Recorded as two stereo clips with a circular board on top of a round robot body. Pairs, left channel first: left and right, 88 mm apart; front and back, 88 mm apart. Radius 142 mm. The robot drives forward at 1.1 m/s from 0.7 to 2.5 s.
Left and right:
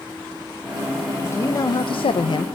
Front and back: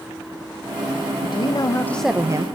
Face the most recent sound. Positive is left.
turn(degrees=135)